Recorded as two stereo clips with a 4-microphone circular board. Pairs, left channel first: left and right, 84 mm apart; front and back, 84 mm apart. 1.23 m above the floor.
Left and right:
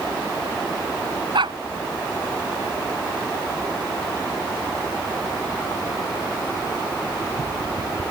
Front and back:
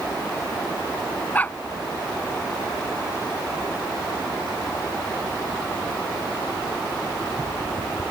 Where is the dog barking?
70° right.